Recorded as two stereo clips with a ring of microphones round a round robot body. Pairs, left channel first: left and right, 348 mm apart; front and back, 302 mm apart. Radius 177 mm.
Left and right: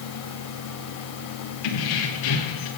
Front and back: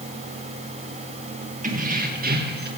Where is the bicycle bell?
No bicycle bell in this recording.